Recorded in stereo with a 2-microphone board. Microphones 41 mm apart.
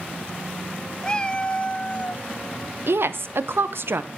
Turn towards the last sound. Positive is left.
turn(degrees=-70)  # may be behind; listen again after turning